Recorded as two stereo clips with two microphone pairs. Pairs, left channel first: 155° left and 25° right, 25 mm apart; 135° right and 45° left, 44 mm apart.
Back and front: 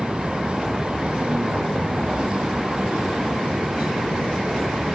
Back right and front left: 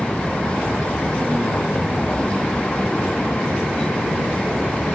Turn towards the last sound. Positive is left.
turn(degrees=-70)